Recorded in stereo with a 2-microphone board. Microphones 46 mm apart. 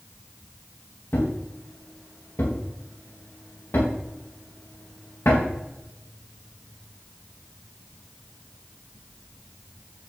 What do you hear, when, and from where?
1.1 s a thud: 85° left, 3 m